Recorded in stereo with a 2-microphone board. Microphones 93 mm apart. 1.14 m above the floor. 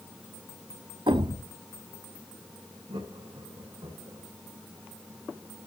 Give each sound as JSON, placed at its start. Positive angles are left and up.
{"t": 1.1, "sound": "a thud", "side_deg": -60, "distance_m": 1.0}
{"t": 2.9, "sound": "laughter", "side_deg": -85, "distance_m": 5.0}